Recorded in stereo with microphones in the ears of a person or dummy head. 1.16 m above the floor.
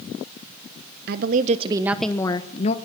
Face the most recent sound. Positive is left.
turn(degrees=35)  # may be behind; listen again after turning